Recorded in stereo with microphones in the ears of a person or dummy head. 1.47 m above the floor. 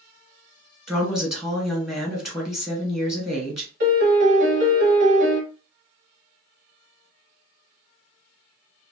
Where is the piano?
50° right (ahead or behind), 1.0 m.